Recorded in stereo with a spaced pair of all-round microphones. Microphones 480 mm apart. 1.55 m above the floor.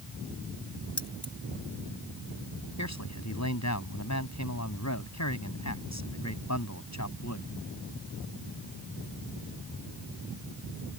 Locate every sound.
1.0 s keys jangling: 85° left
2.8 s a man speaking: 35° left (ahead or behind)